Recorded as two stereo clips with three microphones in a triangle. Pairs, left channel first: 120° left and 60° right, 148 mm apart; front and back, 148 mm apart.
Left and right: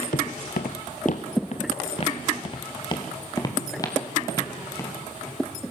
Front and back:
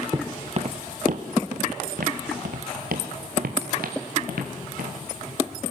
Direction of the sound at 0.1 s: 115° left.